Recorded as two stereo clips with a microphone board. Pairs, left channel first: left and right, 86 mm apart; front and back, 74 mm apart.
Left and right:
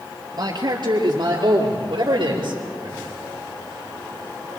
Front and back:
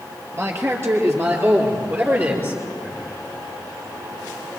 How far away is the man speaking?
About 5.5 m.